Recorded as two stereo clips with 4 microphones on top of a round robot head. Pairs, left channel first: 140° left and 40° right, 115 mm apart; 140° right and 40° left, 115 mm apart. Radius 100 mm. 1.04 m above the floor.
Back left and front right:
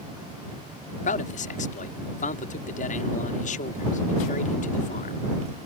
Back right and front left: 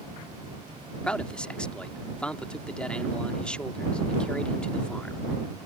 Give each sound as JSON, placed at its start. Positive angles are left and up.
{"t": 1.0, "sound": "a man speaking", "azimuth_deg": 140}